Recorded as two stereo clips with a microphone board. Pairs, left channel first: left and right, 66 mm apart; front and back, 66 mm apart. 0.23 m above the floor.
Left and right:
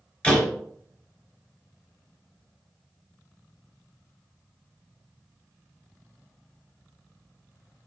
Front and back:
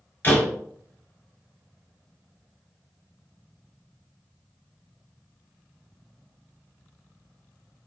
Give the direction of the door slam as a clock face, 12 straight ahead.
11 o'clock.